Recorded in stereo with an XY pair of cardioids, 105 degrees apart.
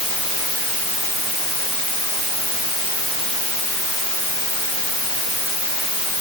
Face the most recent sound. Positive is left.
No sound to turn to.